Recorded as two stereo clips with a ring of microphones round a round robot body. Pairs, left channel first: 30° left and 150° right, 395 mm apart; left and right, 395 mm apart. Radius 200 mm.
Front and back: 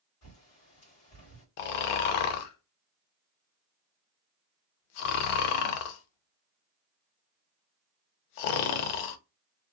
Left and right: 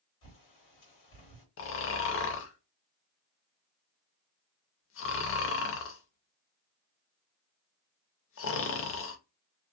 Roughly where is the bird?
Left.